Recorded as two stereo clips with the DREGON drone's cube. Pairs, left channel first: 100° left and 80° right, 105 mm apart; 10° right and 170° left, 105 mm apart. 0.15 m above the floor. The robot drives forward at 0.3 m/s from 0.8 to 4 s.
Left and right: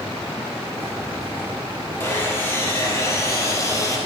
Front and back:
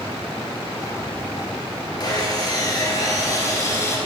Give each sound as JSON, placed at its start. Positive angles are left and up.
{"t": 2.0, "sound": "sawing", "azimuth_deg": 35, "distance_m": 2.0}